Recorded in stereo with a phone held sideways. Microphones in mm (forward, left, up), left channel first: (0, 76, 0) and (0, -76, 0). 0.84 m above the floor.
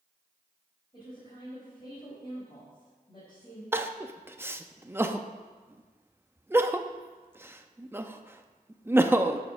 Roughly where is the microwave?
I don't hear a microwave.